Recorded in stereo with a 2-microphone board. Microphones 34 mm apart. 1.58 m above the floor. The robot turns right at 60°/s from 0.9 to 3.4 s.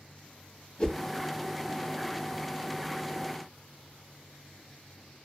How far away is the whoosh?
About 1.1 m.